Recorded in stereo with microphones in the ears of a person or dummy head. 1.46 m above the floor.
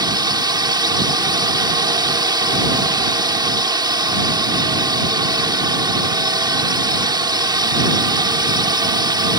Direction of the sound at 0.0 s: 25° right (ahead or behind).